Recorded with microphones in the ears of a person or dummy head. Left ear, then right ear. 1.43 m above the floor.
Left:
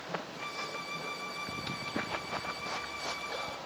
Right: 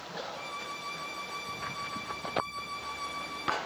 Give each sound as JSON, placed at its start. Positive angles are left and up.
{"t": 0.3, "sound": "a violin", "side_deg": 0, "distance_m": 0.7}